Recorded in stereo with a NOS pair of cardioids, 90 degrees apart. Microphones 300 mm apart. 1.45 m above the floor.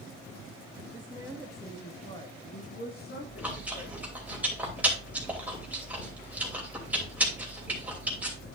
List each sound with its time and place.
0.9 s a woman speaking: 20° right, 1.5 m; by 3.9 s 40° left, 3 m
3.2 s chewing: 5° right, 3 m